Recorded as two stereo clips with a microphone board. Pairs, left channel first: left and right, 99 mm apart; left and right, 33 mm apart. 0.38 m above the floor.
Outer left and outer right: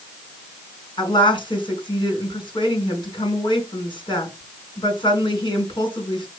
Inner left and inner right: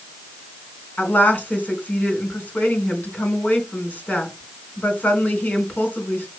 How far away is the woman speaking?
About 4.5 m.